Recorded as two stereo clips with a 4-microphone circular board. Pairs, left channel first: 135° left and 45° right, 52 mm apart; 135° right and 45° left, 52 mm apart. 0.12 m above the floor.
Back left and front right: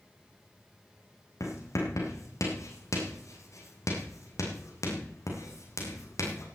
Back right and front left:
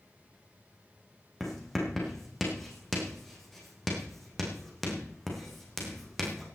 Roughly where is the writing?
Behind left.